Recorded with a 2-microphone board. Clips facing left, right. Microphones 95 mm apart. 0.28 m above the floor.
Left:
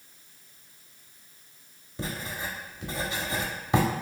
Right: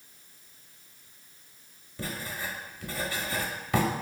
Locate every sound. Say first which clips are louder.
2.0 s writing: left 1 dB; 20° left (ahead or behind), 0.6 m